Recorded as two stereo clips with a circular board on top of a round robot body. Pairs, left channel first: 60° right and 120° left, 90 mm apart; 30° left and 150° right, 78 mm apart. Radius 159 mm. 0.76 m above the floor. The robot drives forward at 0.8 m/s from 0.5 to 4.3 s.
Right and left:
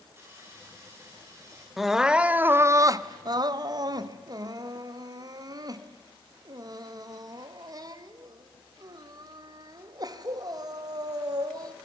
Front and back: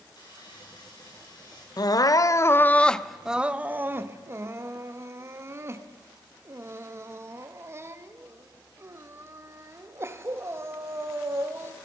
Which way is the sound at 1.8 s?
30° left.